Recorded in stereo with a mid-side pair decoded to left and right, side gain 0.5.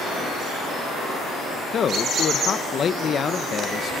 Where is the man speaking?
45° left, 1.0 m.